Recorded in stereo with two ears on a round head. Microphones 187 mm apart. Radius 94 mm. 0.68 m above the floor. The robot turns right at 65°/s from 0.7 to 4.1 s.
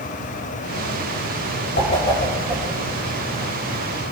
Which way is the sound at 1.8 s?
45° left (ahead or behind).